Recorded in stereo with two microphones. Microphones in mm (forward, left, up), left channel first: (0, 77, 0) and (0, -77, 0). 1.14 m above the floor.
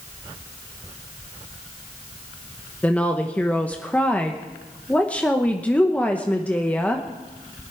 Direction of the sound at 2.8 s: 10° left (ahead or behind).